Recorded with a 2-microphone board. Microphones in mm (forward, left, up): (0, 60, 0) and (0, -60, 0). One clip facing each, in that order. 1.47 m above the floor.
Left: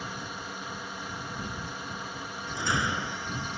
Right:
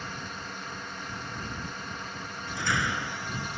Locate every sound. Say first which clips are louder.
0.0 s a drone: left 1 dB; 10° left (ahead or behind)
2.6 s a door slam: even; 20° left (ahead or behind)